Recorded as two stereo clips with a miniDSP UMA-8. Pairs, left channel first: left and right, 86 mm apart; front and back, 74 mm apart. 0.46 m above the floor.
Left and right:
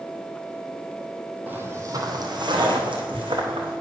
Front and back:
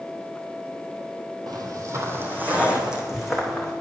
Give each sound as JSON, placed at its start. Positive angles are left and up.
{"t": 1.5, "sound": "footsteps", "azimuth_deg": -155, "distance_m": 1.1}